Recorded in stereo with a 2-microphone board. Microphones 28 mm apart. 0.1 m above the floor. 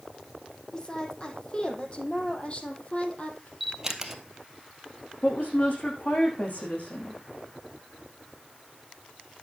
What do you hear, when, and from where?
0.7 s a woman speaking: 25° left (ahead or behind), 4 m; by 3.5 s 45° left (ahead or behind), 3 m
3.6 s a camera shutter: 15° right (ahead or behind), 1.8 m
5.2 s a woman speaking: 60° left (ahead or behind), 6.5 m